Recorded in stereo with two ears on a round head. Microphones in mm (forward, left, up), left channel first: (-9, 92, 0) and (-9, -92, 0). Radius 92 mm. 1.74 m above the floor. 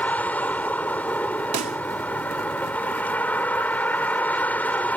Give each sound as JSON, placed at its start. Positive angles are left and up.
{"t": 0.0, "sound": "a vehicle", "side_deg": 10}
{"t": 1.5, "sound": "a pop", "side_deg": -35}